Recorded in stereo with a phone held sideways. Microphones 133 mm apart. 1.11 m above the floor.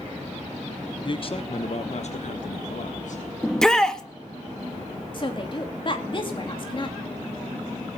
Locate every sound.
1.0 s a man speaking: 35° left (ahead or behind), 0.8 m; by 3.2 s 65° left (ahead or behind), 1.7 m
3.4 s a shout: 5° left (ahead or behind), 1.4 m
5.1 s a woman speaking: 40° left (ahead or behind), 2.5 m